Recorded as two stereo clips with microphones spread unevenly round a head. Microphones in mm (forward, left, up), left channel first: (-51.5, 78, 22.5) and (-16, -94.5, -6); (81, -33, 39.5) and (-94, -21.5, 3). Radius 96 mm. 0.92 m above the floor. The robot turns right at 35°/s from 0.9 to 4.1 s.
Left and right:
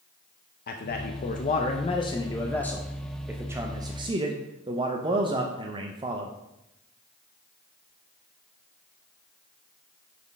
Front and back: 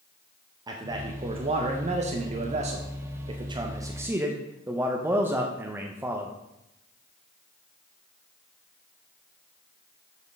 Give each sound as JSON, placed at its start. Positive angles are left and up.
{"t": 0.7, "sound": "a man speaking", "azimuth_deg": 125, "distance_m": 0.7}